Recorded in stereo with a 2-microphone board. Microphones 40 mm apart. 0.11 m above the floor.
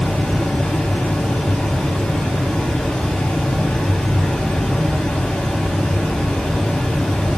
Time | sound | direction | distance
0.0 | running water | 20° left (ahead or behind) | 0.8 m